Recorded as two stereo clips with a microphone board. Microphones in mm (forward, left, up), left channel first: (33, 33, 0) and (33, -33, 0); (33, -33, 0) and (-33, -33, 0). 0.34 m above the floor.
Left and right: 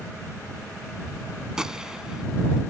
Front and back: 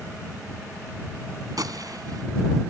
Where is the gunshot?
170° right.